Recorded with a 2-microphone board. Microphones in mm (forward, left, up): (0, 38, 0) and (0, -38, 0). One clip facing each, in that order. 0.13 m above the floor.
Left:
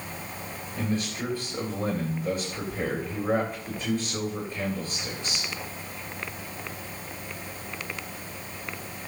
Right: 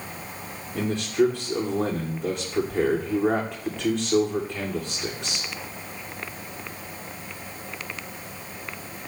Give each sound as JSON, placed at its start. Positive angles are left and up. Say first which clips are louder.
{"t": 0.8, "sound": "a man speaking", "louder": "right 8 dB", "side_deg": -75, "distance_m": 9.0}